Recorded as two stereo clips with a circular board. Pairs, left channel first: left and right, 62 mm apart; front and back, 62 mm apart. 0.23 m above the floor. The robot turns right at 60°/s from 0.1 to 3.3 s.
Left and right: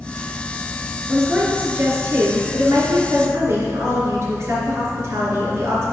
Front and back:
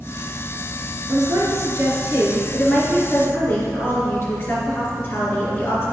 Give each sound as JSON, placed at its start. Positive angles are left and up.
{"t": 1.1, "sound": "a woman speaking", "azimuth_deg": 180, "distance_m": 3.5}